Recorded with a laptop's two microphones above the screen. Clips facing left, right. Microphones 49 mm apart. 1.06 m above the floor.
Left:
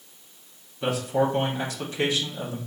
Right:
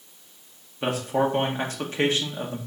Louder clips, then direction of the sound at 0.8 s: Even; 35° right (ahead or behind).